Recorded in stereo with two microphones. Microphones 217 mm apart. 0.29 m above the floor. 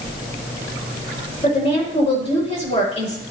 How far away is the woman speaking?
About 7 m.